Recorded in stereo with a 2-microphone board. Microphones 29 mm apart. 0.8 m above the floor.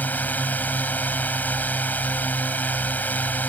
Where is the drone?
75° left (ahead or behind).